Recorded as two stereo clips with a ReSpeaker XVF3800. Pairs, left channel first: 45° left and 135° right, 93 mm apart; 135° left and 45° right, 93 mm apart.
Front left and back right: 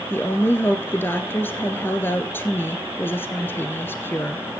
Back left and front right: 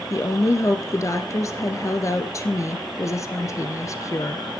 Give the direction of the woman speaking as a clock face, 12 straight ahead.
9 o'clock.